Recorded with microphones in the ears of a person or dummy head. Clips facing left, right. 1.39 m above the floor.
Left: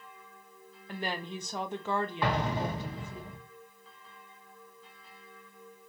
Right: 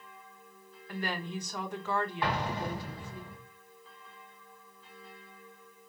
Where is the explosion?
65° left (ahead or behind), 1.5 m.